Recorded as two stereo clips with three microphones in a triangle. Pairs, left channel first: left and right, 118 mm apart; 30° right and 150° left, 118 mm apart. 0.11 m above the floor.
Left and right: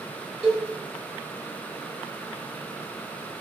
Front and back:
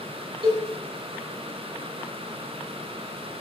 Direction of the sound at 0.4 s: 175° right.